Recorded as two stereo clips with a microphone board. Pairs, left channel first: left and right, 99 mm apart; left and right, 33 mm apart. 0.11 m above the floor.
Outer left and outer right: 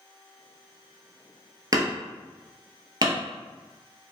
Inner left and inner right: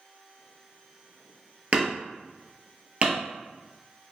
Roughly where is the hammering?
Right.